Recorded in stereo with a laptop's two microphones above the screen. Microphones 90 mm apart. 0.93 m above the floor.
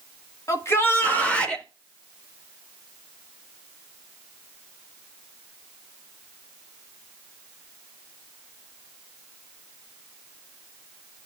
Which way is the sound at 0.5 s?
35° left (ahead or behind).